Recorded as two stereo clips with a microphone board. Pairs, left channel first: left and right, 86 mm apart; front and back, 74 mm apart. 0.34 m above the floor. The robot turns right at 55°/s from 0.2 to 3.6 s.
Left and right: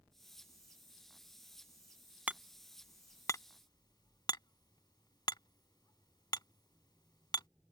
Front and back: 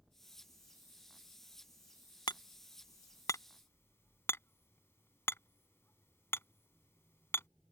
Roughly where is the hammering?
Ahead.